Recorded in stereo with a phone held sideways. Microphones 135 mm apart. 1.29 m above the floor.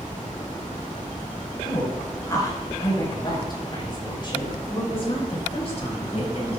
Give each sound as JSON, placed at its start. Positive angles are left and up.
{"t": 1.6, "sound": "a woman speaking", "side_deg": 25, "distance_m": 6.0}